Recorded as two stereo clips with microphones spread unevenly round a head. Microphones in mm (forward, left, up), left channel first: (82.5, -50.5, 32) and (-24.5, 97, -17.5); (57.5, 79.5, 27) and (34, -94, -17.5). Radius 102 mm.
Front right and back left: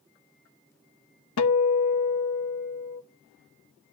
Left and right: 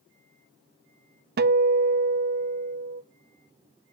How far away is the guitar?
About 0.8 m.